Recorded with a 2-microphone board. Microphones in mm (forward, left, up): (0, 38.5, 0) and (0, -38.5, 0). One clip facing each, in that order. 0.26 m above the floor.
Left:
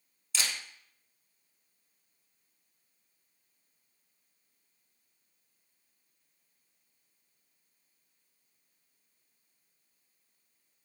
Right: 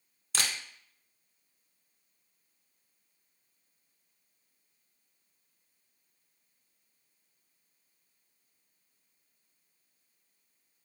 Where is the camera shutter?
55° right (ahead or behind), 0.6 m.